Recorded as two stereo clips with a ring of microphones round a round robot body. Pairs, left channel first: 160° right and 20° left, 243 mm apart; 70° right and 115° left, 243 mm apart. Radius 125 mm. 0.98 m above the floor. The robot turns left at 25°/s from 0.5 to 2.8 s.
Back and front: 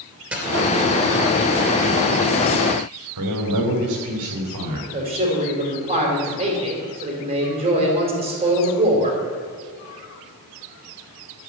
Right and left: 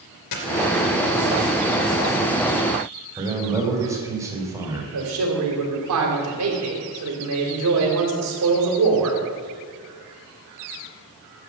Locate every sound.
0.3 s a dropped coin: 60° right, 2.5 m; by 0.5 s 65° right, 2.5 m
3.2 s a man speaking: 35° left, 3 m
4.9 s a man speaking: 90° left, 3.5 m